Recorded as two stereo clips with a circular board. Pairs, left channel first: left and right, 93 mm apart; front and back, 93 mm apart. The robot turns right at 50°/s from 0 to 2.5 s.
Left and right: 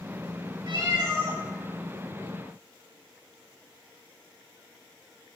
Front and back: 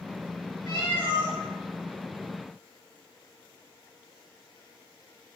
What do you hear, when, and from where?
0.7 s a cat meowing: 55° right, 0.7 m; by 1.4 s 20° right, 0.7 m